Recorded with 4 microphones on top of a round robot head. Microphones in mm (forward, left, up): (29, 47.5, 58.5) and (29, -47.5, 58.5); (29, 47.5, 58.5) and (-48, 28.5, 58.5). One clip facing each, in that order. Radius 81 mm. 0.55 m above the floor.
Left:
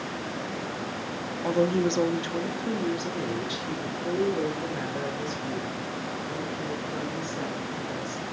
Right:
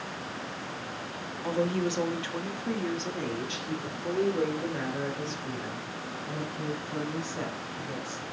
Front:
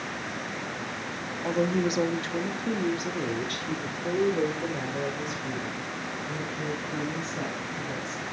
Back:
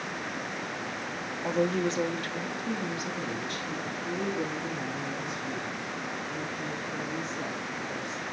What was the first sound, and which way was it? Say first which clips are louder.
A woman speaking: left 4 dB, front 1 dB; 110° left.